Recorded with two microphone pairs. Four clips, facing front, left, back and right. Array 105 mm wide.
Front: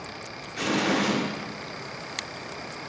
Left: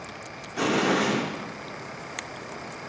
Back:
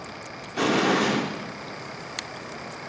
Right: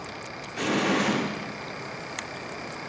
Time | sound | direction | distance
0.6 | an explosion | 160° left | 5.5 m